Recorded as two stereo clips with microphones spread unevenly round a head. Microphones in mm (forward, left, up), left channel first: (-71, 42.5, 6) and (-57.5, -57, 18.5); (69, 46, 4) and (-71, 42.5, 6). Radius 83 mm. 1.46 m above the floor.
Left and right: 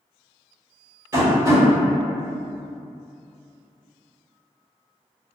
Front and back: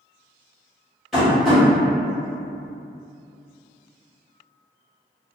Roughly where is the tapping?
Right.